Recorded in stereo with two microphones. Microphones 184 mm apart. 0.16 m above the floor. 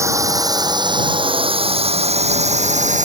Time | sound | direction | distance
0.0 | a drone | 15° right (ahead or behind) | ?